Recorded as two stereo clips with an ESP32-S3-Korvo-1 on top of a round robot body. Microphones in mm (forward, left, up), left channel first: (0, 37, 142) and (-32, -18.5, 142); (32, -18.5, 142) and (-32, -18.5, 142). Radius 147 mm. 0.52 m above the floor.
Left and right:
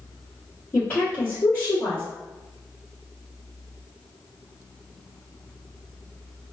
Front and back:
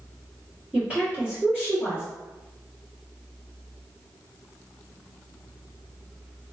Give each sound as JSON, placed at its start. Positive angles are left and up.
{"t": 0.7, "sound": "a woman speaking", "azimuth_deg": 115, "distance_m": 1.6}